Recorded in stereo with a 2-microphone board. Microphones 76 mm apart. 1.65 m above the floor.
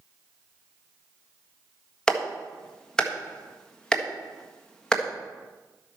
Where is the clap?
10° left (ahead or behind), 1.5 m.